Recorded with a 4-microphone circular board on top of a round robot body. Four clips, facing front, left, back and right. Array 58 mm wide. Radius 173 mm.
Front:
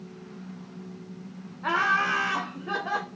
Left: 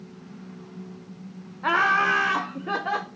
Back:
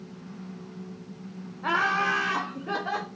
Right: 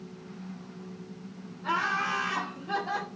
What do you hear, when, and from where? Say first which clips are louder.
1.6 s laughter: left 8 dB, front 1 dB; 90° left, 0.8 m